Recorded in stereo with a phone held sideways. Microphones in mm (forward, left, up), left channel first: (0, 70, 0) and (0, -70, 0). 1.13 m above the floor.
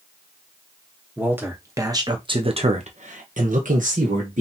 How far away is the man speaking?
About 1.5 m.